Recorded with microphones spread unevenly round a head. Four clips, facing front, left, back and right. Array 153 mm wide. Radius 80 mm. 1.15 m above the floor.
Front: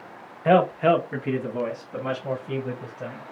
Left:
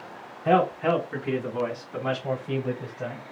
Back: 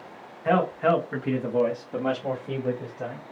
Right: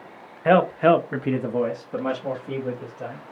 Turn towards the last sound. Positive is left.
turn(degrees=-160)